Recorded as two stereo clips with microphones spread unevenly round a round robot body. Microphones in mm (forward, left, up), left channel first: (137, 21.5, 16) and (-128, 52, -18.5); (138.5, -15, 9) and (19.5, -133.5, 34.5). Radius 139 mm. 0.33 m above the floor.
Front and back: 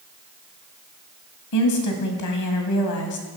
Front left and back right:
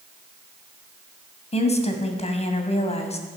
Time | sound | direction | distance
1.5 | a woman speaking | straight ahead | 2 m